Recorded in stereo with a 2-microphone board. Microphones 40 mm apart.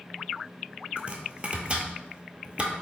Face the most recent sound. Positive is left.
turn(degrees=-30)  # may be behind; listen again after turning